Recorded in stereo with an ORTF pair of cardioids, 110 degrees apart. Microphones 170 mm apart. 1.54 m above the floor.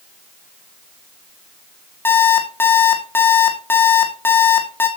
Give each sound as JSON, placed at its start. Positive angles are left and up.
{"t": 2.0, "sound": "an alarm clock", "azimuth_deg": 15, "distance_m": 2.5}